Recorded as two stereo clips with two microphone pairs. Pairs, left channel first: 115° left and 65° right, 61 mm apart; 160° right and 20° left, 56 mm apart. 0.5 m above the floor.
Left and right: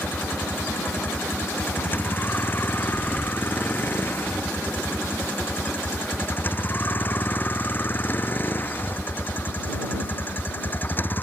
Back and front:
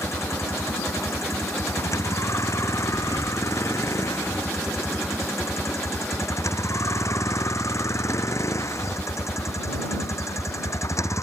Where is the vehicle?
170° left.